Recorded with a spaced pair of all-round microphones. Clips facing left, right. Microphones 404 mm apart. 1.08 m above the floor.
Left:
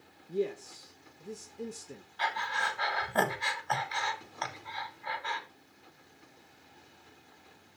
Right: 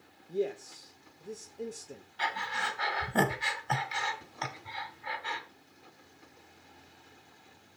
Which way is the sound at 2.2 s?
40° right (ahead or behind).